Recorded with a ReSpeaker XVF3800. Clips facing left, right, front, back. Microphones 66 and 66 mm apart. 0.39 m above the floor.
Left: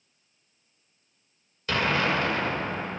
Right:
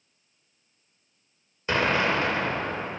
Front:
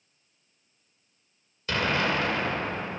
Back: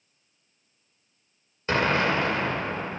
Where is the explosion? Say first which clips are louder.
Right 1 dB, back 3 dB; 145° right, 1.4 m.